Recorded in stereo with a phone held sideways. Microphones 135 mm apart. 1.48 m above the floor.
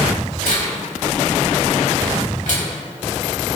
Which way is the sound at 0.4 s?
70° left (ahead or behind).